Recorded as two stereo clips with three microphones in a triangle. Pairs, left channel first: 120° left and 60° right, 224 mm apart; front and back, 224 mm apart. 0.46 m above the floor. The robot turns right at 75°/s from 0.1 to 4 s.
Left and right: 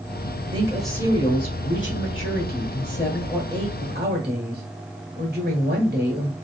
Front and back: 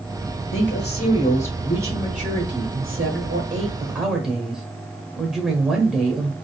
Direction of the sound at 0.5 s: 5° left.